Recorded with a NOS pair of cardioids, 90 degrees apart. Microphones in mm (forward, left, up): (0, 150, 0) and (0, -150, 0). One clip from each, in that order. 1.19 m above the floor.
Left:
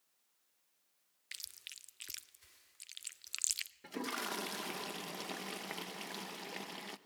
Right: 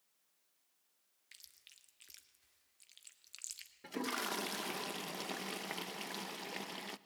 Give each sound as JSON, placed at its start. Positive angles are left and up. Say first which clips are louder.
{"t": 1.3, "sound": "chewing", "louder": "left 11 dB", "azimuth_deg": 50, "distance_m": 0.7}
{"t": 3.8, "sound": "a toilet flushing", "louder": "right 3 dB", "azimuth_deg": -5, "distance_m": 0.6}